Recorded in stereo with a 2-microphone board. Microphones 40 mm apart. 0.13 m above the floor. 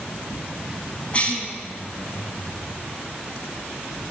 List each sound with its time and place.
1.1 s a cough: 30° left (ahead or behind), 5.5 m